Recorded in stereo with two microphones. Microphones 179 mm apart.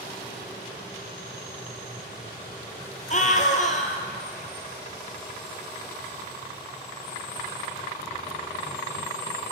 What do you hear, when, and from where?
3.1 s a scream: 45° left (ahead or behind), 2 m